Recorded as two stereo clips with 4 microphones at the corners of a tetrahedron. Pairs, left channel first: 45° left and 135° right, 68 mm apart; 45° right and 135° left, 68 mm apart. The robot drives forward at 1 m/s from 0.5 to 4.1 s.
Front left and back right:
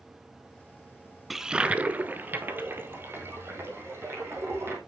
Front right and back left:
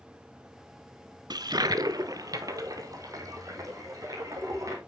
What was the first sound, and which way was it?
A toilet flushing, 135° left.